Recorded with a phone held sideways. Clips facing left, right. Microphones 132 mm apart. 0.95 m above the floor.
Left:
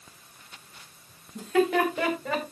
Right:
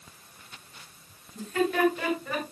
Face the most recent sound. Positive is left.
turn(degrees=85)